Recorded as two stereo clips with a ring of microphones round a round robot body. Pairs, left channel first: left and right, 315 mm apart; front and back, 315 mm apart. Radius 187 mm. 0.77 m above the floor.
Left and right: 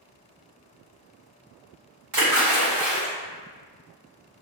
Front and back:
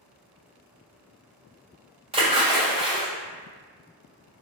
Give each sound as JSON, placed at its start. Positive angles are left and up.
{"t": 2.1, "sound": "a splash", "azimuth_deg": -110, "distance_m": 2.0}